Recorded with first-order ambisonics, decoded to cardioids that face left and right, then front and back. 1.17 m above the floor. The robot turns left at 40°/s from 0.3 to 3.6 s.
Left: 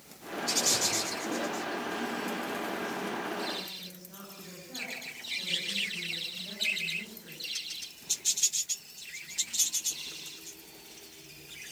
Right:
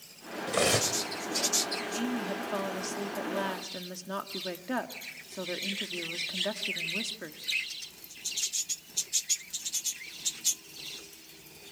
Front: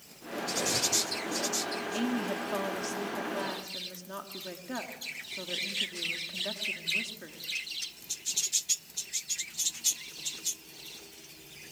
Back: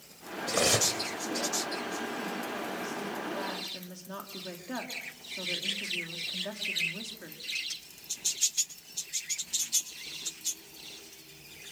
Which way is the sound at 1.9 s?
25° right.